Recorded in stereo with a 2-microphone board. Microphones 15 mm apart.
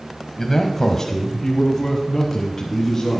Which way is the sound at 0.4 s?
25° left (ahead or behind).